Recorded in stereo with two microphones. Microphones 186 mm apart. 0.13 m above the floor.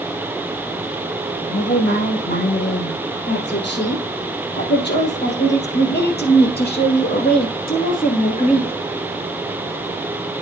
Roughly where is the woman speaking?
Left.